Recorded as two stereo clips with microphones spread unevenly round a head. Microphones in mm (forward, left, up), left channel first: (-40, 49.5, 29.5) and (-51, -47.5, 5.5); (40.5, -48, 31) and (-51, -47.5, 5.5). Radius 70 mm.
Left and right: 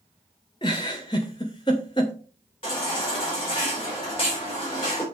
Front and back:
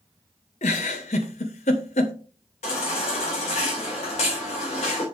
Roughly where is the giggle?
Ahead left.